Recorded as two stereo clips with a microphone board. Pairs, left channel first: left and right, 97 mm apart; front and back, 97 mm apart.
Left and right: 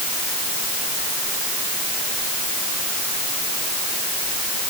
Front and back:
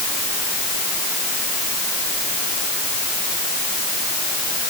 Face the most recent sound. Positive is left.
No sound to turn to.